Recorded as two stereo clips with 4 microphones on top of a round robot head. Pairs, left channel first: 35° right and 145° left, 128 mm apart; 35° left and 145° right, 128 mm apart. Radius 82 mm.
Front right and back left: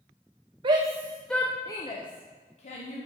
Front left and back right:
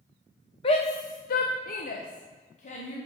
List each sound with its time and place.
0.6 s a shout: 90° left, 0.7 m; by 3.0 s straight ahead, 1.7 m